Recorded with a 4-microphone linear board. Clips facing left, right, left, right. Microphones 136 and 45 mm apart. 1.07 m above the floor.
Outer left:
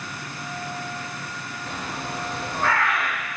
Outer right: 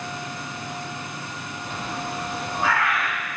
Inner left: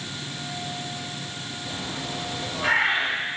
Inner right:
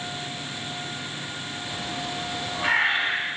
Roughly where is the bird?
Centre.